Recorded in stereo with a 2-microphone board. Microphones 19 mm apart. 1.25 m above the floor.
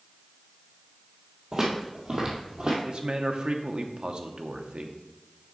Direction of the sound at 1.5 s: 35° right (ahead or behind).